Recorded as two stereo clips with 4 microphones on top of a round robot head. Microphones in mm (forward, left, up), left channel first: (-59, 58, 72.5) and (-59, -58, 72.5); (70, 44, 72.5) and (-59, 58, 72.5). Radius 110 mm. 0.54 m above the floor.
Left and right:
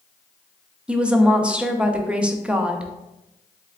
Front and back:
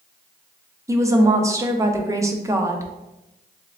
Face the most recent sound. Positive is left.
turn(degrees=-160)